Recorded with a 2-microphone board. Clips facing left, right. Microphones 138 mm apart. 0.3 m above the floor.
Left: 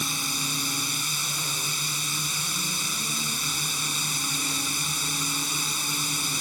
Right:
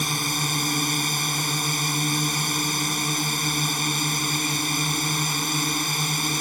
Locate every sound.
0.0 s a drone: 60° right (ahead or behind)